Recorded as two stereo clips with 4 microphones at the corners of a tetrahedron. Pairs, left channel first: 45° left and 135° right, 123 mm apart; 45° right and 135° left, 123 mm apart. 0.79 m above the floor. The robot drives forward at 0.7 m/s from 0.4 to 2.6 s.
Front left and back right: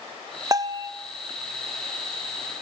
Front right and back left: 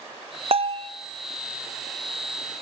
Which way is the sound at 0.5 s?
170° left.